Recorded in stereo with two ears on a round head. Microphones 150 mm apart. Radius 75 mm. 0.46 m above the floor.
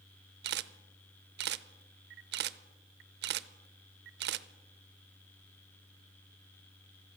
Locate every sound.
0.4 s a camera shutter: 65° right (ahead or behind), 0.6 m